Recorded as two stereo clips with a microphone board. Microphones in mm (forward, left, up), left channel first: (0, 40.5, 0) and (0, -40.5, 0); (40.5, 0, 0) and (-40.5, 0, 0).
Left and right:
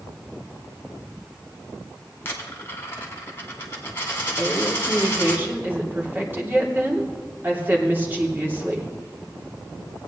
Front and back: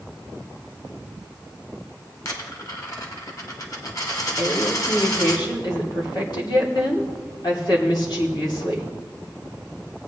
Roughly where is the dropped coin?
Ahead left.